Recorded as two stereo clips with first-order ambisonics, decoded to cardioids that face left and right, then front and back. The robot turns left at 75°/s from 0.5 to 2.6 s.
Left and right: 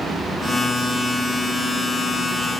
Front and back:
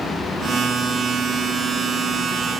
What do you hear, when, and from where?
Only background noise.